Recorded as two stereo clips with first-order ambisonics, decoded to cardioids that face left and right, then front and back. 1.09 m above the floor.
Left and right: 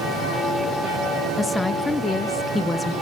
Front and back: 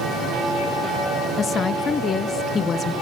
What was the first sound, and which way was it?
A woman speaking, 25° left.